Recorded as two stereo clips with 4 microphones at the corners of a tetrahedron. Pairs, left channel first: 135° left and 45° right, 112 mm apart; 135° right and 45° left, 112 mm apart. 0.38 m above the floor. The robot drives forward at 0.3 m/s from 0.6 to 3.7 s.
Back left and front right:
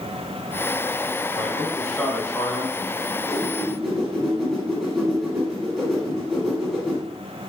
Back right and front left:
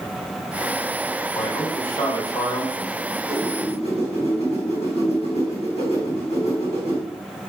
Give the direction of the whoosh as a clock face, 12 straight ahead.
4 o'clock.